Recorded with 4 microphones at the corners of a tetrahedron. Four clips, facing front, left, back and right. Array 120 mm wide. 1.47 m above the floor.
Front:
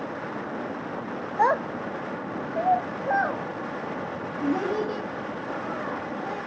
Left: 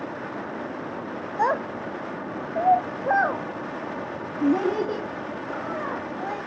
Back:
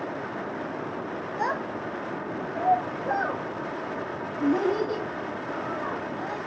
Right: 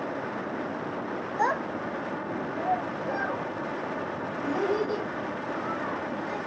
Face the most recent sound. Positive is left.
turn(degrees=90)